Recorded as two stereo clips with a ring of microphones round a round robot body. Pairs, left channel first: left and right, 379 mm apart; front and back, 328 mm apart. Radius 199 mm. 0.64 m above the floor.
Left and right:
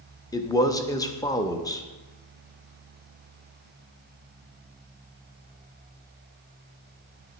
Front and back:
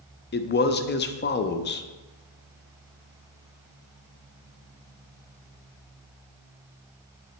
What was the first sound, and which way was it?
A man speaking, 20° left.